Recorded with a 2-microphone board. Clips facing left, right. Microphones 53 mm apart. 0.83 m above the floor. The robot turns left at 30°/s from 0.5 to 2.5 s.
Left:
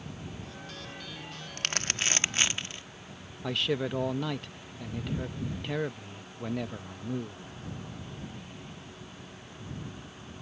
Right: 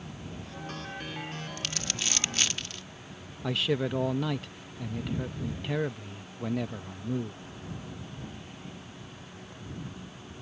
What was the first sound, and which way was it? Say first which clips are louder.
Crumpling: left 7 dB; 55° left (ahead or behind).